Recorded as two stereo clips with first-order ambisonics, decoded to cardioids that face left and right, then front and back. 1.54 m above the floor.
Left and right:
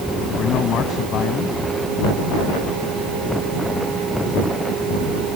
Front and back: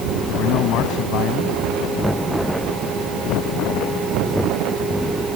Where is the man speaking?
35° left.